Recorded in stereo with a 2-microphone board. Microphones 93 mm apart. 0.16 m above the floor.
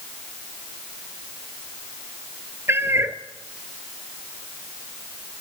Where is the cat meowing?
30° right (ahead or behind), 1.4 m.